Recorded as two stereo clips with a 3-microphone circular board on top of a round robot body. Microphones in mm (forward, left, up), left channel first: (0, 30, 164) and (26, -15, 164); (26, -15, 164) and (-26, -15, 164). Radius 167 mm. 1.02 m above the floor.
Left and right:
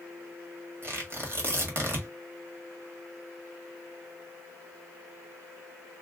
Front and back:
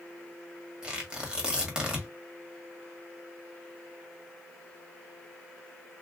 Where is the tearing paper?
105° right, 1.6 m.